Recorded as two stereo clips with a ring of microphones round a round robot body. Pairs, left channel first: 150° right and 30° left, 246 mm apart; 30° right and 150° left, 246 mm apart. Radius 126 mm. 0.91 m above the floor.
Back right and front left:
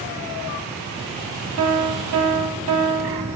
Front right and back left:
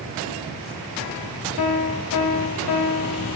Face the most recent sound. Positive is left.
turn(degrees=-5)